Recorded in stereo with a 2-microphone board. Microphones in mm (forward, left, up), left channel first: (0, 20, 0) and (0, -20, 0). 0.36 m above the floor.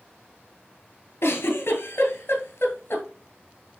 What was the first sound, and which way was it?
A giggle, 75° left (ahead or behind).